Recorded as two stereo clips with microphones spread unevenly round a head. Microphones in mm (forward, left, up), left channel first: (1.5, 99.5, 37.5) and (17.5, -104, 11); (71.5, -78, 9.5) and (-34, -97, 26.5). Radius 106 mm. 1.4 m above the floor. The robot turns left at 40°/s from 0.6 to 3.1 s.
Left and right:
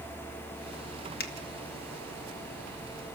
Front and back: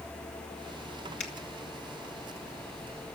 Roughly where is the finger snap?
Ahead left.